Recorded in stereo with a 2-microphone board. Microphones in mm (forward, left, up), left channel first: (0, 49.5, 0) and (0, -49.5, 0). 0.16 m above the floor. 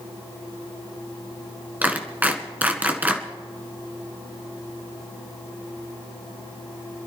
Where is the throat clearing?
I don't hear throat clearing.